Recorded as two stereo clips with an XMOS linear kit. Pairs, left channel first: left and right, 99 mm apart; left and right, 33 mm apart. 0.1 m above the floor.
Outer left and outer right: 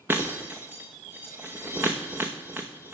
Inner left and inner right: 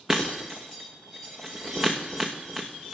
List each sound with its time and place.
0.1 s breaking glass: 20° right (ahead or behind), 2 m